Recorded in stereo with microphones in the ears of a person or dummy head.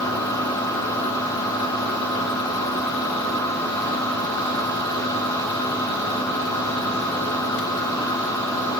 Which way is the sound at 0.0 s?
10° left (ahead or behind).